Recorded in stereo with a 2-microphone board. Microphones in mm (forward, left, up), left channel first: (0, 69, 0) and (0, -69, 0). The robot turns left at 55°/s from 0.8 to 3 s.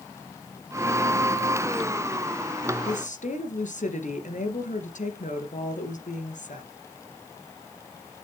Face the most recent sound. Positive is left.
turn(degrees=65)  # may be behind; listen again after turning